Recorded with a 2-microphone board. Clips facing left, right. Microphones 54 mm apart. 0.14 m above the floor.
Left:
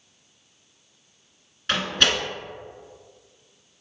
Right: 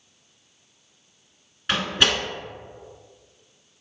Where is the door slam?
5° right (ahead or behind), 1.2 m.